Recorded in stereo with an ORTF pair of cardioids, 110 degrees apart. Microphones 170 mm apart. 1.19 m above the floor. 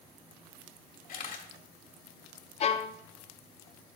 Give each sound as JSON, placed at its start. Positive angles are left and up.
{"t": 1.1, "sound": "a camera shutter", "azimuth_deg": 55, "distance_m": 1.9}
{"t": 2.6, "sound": "a violin", "azimuth_deg": 40, "distance_m": 0.8}